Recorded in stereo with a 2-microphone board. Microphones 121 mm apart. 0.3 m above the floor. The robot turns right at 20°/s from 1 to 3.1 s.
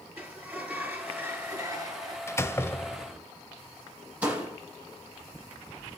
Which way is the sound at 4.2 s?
15° right (ahead or behind).